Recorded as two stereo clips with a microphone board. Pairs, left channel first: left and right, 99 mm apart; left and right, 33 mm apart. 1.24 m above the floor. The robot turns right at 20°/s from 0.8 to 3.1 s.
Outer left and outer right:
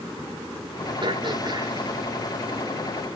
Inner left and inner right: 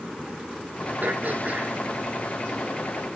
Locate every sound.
1.0 s throat clearing: 55° right (ahead or behind), 3.5 m; by 1.8 s 40° right (ahead or behind), 3.5 m